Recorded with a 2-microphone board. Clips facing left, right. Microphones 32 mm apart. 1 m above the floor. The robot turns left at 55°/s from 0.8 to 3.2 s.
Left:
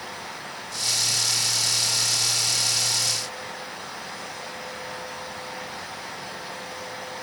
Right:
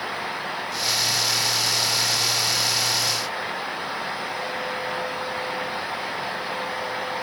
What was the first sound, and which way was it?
Only background noise.